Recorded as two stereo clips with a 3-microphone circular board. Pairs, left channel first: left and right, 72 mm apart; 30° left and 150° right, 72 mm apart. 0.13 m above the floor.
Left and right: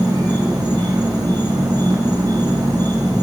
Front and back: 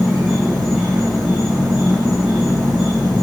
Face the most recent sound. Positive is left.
turn(degrees=-75)